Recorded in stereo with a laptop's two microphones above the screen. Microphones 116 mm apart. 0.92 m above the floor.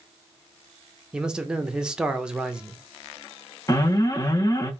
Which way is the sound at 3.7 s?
30° left (ahead or behind).